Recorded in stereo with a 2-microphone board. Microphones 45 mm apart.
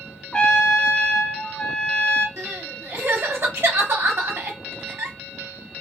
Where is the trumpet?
25° left (ahead or behind), 0.6 m.